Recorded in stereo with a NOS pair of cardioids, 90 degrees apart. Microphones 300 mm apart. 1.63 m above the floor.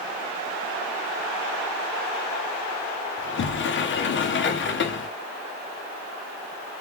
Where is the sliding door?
40° left, 0.7 m.